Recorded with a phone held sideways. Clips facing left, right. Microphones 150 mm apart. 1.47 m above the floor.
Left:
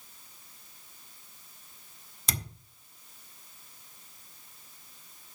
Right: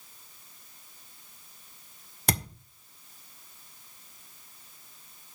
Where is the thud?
65° right (ahead or behind), 2.0 m.